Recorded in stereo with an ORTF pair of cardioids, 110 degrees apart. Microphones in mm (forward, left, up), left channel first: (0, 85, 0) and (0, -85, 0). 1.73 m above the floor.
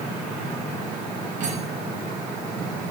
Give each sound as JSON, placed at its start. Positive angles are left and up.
{"t": 1.4, "sound": "cutlery clinking", "azimuth_deg": -50, "distance_m": 6.5}